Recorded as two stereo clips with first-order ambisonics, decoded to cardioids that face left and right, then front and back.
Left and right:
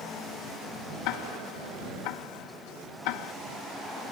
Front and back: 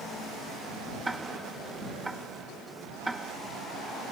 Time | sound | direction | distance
1.1 | ticking | 95° left | ?